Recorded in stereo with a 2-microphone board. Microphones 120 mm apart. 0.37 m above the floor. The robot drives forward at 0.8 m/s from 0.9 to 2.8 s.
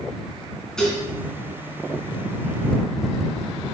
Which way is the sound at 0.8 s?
5° left (ahead or behind).